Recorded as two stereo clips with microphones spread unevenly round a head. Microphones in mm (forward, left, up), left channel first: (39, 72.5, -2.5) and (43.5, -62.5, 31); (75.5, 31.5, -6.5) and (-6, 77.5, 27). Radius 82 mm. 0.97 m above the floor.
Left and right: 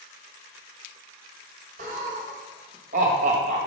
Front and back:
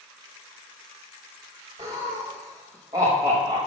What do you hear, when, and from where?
1.8 s laughter: 135° right, 1.2 m